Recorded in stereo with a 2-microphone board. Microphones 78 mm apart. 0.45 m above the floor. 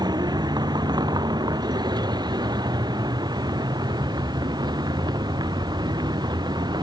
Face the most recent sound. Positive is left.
turn(degrees=-65)  # may be behind; listen again after turning